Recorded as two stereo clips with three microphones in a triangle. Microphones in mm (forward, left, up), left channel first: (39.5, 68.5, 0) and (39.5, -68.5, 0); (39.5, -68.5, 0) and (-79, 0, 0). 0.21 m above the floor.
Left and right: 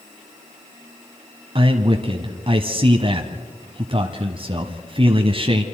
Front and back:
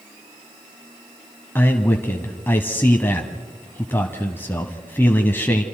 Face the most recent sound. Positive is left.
turn(degrees=-95)